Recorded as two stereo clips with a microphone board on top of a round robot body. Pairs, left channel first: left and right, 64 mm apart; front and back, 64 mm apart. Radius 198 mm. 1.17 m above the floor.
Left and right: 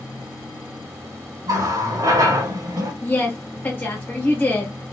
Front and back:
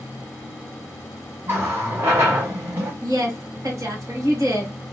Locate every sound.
1.5 s a running tap: 125° right, 1.1 m
3.0 s a woman speaking: 150° left, 1.6 m